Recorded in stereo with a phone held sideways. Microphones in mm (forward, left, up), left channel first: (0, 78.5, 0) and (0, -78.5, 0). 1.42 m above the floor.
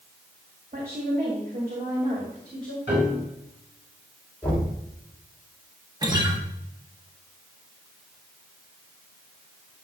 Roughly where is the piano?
Right.